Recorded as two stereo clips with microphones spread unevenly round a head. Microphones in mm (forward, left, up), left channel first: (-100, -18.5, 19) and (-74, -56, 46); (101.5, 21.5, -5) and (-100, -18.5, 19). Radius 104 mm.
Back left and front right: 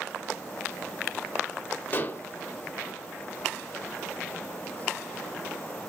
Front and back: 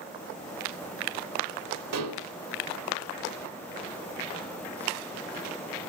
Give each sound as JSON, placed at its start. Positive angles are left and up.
{"t": 1.9, "sound": "dishes clattering", "azimuth_deg": -175, "distance_m": 2.5}